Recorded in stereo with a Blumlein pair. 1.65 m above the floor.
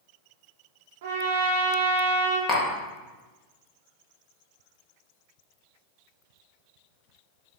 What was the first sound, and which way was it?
A trumpet, 55° right.